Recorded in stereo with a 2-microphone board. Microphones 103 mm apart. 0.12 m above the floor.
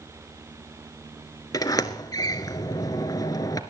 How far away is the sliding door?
About 0.9 m.